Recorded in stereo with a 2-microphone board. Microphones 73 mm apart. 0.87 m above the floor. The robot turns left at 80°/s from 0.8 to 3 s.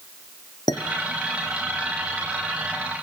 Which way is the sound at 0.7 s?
70° left (ahead or behind).